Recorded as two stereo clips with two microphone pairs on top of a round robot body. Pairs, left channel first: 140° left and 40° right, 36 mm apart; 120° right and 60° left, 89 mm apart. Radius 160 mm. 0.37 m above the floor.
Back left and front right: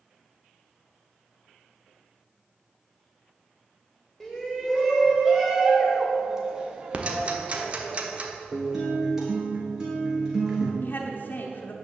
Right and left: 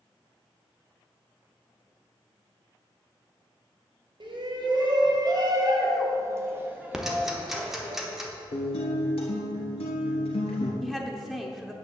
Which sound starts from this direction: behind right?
A guitar, at 8.5 s.